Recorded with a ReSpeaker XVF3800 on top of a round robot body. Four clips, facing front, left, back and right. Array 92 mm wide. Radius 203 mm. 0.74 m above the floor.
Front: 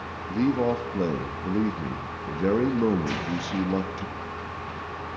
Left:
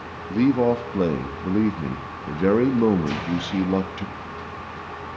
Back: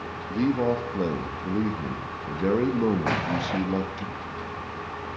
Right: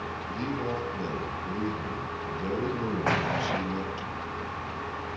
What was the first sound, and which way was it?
A man speaking, 85° left.